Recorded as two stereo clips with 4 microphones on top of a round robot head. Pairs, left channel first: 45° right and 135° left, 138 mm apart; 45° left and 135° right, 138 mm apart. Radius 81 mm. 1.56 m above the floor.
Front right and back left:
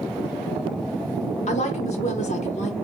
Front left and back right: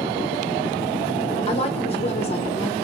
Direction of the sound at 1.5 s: 5° right.